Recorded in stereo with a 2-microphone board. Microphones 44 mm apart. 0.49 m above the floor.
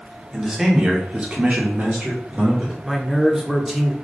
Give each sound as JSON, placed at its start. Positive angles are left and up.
{"t": 0.3, "sound": "a man speaking", "side_deg": -10, "distance_m": 1.1}
{"t": 2.8, "sound": "a man speaking", "side_deg": -10, "distance_m": 0.8}